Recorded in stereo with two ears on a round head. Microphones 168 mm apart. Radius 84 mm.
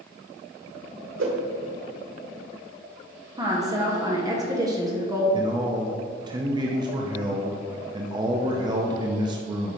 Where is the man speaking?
25° right (ahead or behind), 0.5 m.